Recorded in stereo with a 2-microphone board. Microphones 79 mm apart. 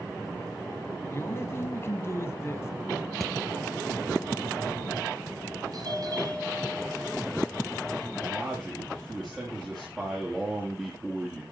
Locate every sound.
1.1 s a man speaking: 35° left (ahead or behind), 1.4 m
3.2 s hammering: 5° left (ahead or behind), 2 m
5.7 s a doorbell: 55° right (ahead or behind), 6.5 m
8.2 s a man speaking: 15° right (ahead or behind), 5.5 m